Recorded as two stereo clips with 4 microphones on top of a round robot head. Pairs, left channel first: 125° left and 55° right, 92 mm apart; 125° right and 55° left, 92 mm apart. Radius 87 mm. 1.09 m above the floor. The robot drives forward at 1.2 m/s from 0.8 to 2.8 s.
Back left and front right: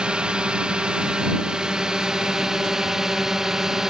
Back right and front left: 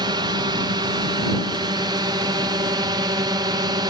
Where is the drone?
25° left; by 3.9 s 30° left.